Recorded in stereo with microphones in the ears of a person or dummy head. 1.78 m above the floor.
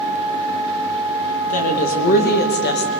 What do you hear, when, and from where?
1.4 s a woman speaking: 50° left (ahead or behind), 3 m; by 2.9 s 65° left (ahead or behind), 2.0 m